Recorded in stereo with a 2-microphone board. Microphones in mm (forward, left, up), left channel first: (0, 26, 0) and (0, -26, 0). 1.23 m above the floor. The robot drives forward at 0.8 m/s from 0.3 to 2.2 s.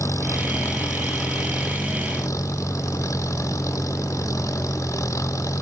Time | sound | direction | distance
0.0 | an engine running | 80° left | ?